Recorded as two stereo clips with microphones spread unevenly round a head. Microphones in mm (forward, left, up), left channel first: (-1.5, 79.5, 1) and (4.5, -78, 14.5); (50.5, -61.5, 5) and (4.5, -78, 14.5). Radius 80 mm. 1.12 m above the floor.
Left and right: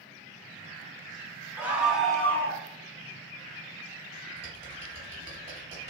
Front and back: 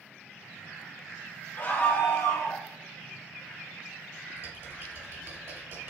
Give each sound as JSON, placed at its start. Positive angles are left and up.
{"t": 1.6, "sound": "a scream", "azimuth_deg": -10, "distance_m": 1.3}
{"t": 4.4, "sound": "typing on a keyboard", "azimuth_deg": -145, "distance_m": 2.0}